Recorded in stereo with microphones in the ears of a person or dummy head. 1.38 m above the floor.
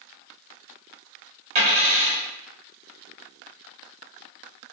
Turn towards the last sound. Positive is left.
turn(degrees=-35)  # may be behind; listen again after turning